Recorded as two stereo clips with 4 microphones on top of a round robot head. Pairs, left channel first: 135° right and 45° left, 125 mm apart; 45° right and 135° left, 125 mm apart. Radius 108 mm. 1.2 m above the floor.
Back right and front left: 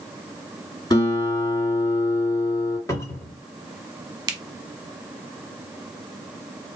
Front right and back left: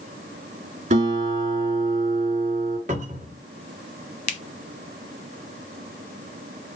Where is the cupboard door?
160° left, 1.0 m.